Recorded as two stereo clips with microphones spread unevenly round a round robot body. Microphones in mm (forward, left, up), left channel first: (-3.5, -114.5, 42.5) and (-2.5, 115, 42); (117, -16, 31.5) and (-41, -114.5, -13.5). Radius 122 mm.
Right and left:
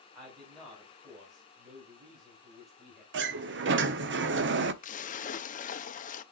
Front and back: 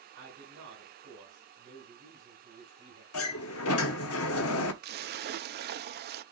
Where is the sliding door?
50° left, 0.7 m.